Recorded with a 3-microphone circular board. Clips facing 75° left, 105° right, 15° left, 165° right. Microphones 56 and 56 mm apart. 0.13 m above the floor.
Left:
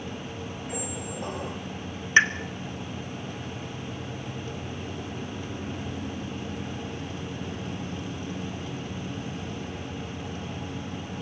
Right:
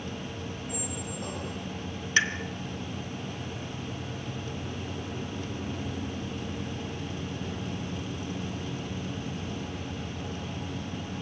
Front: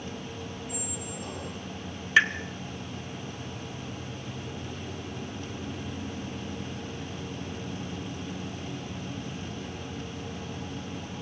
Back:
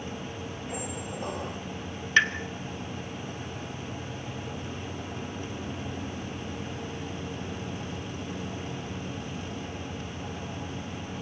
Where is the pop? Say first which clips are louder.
Left 6 dB, front 1 dB; 95° left, 1.7 m.